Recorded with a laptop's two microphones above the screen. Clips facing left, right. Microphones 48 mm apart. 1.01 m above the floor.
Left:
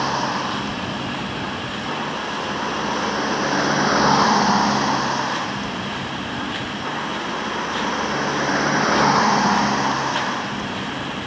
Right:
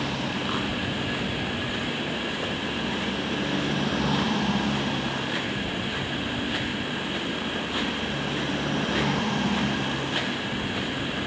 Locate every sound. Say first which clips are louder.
0.0 s a vehicle: left 7 dB; 65° left (ahead or behind); by 11.3 s 85° left